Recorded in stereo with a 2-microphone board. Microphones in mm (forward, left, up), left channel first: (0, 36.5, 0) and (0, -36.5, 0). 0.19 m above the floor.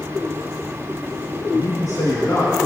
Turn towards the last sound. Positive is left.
turn(degrees=60)  # may be behind; listen again after turning